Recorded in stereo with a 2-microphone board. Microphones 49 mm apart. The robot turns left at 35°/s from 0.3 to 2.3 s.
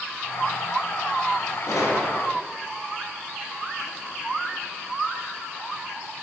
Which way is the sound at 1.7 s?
70° left (ahead or behind).